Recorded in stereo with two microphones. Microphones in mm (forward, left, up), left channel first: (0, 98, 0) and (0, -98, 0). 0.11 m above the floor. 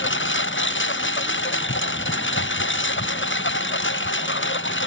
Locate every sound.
0.0 s a lawn mower: 75° left (ahead or behind)